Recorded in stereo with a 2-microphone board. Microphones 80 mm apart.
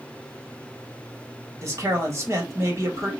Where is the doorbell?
I don't hear a doorbell.